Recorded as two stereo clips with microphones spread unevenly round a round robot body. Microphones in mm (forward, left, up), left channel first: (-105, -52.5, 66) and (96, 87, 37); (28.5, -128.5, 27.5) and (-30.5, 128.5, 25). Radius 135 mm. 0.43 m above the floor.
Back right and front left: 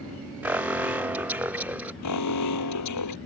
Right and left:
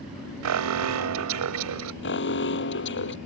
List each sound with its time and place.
0.4 s an alarm: 115° left
2.0 s an alarm: 125° right